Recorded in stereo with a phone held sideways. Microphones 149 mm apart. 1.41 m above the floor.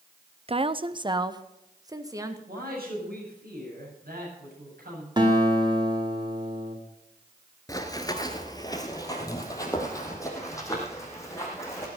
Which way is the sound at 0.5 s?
40° right (ahead or behind).